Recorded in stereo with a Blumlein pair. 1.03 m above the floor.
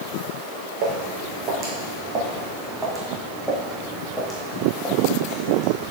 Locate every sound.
0.8 s footsteps: 40° right, 3.5 m; by 5.9 s 30° left, 4 m